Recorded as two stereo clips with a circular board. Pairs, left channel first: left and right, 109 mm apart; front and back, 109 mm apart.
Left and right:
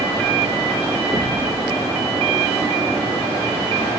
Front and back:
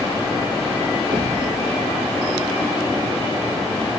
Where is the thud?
145° right, 1.9 m.